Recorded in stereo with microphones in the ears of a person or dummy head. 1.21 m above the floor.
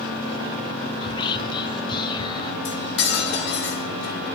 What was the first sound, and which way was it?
Whispering, 25° left (ahead or behind).